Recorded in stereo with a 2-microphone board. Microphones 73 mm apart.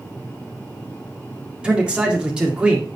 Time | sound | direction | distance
1.6 | a man speaking | 15° right (ahead or behind) | 2.0 m